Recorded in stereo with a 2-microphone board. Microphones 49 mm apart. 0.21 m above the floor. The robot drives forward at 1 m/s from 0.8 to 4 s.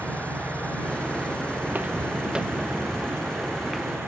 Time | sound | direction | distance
0.0 | an engine running | 25° left (ahead or behind) | ?
1.6 | footsteps | 50° right (ahead or behind) | ?